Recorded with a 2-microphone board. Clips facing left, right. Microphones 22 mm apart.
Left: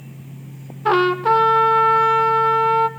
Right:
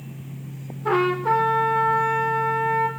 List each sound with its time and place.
0.8 s a trumpet: 70° left (ahead or behind), 1.8 m